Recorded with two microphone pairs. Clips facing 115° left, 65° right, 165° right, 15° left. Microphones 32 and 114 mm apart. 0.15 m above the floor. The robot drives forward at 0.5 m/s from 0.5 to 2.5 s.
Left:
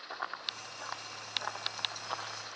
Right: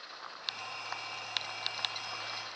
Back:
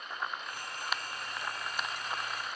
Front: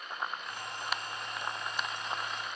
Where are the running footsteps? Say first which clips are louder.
Left 4 dB, even; 80° left, 2 m.